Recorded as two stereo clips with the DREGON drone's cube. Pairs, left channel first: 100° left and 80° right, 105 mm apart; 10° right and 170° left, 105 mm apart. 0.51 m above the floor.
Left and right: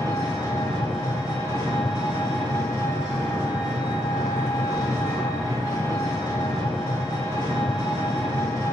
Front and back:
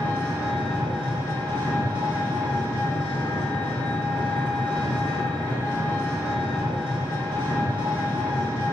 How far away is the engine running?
About 1.9 m.